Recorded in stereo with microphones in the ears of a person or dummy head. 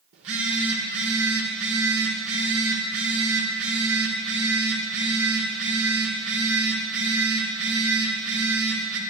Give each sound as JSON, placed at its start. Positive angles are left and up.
{"t": 0.1, "sound": "a phone buzzing", "side_deg": -70, "distance_m": 1.9}